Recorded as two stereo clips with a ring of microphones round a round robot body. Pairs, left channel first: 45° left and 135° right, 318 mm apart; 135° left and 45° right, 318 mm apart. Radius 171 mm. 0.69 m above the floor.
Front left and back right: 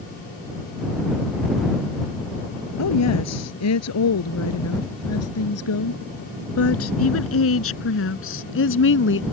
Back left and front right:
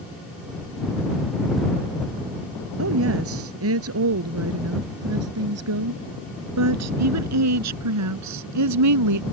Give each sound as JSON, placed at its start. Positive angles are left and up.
{"t": 2.8, "sound": "a woman speaking", "azimuth_deg": 5}